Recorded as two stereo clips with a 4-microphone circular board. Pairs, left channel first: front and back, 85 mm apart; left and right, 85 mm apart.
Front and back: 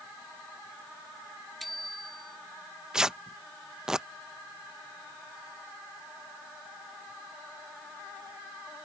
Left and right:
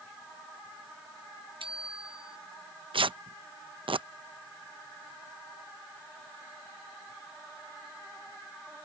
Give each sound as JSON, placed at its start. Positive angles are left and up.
{"t": 1.6, "sound": "a bicycle bell", "azimuth_deg": -85}
{"t": 2.9, "sound": "tearing paper", "azimuth_deg": -95}